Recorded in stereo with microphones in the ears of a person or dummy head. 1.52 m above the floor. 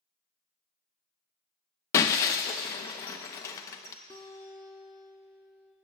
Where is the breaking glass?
20° left (ahead or behind), 0.7 m.